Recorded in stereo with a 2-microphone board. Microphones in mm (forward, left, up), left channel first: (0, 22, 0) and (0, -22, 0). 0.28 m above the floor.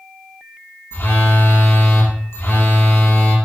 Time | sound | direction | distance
0.9 | a phone buzzing | 70° left (ahead or behind) | 2 m